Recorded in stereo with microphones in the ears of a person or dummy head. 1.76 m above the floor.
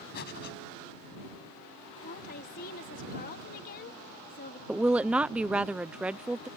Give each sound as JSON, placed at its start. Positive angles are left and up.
{"t": 0.1, "sound": "breathing", "side_deg": 65}
{"t": 2.0, "sound": "a woman speaking", "side_deg": 55}
{"t": 4.7, "sound": "a woman speaking", "side_deg": 0}